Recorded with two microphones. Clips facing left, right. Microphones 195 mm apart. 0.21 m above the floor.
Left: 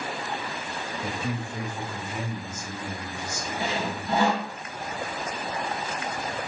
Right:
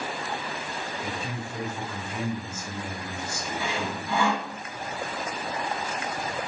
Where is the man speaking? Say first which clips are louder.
Left 3 dB; 30° left (ahead or behind), 1.4 m; by 4.2 s 50° right (ahead or behind), 1.6 m.